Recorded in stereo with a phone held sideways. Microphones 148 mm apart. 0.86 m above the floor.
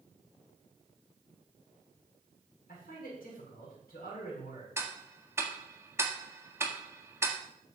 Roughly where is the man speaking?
Left.